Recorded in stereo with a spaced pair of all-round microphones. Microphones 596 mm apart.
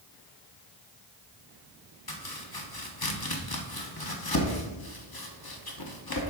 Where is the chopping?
40° left (ahead or behind), 1.0 m.